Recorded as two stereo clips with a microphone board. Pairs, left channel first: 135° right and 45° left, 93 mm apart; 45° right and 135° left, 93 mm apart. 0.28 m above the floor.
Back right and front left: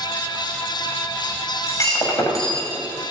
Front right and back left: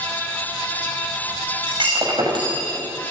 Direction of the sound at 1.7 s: 170° left.